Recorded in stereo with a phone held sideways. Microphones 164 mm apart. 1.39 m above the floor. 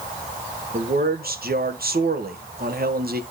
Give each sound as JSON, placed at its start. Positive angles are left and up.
{"t": 0.7, "sound": "a man speaking", "side_deg": -70, "distance_m": 1.3}